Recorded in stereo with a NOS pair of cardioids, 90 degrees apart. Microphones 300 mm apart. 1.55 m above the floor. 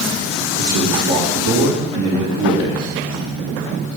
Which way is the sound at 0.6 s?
70° right.